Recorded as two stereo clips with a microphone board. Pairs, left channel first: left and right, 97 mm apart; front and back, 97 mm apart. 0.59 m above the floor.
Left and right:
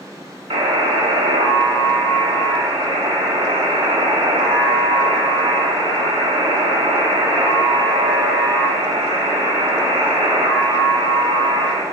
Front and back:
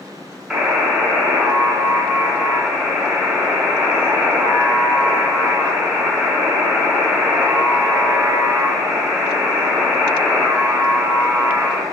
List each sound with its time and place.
0.5 s a buzzer: 100° right, 0.7 m